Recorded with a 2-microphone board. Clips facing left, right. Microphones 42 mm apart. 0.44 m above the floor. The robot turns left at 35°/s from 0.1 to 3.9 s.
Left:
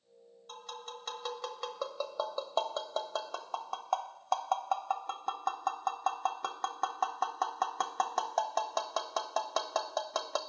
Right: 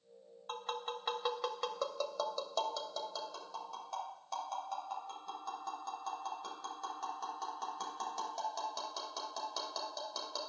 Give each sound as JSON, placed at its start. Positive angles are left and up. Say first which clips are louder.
{"t": 0.5, "sound": "tapping", "louder": "right 5 dB", "side_deg": -40, "distance_m": 0.7}